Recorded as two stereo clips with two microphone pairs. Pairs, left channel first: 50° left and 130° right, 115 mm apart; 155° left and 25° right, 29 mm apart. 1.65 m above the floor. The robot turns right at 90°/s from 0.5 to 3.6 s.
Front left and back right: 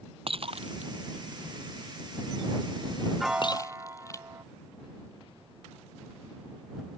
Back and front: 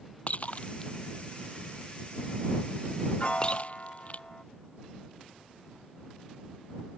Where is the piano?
145° left; by 4.5 s straight behind.